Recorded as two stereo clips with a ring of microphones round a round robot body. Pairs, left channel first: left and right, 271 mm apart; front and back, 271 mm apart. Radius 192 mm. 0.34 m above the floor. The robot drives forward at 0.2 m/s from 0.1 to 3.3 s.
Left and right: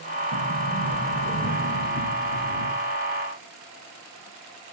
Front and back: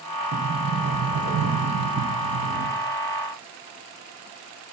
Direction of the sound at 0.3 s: 135° left.